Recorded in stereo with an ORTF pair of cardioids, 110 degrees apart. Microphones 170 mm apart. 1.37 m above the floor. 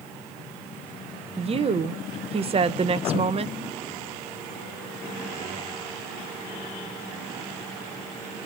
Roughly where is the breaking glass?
I don't hear breaking glass.